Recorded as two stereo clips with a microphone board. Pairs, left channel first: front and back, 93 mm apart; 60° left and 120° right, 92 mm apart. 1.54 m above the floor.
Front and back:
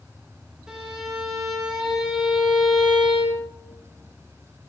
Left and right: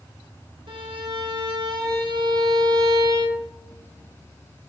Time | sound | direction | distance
0.7 | a violin | 100° right | 2 m